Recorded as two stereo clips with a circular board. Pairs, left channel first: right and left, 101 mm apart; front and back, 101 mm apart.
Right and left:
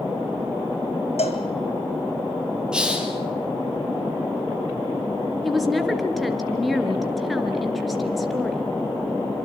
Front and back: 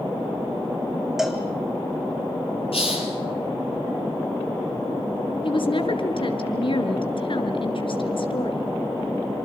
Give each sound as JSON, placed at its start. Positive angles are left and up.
{"t": 1.2, "sound": "a cowbell", "azimuth_deg": -95, "distance_m": 2.5}
{"t": 2.7, "sound": "a hiss", "azimuth_deg": 10, "distance_m": 4.5}
{"t": 5.4, "sound": "a woman speaking", "azimuth_deg": 0, "distance_m": 3.0}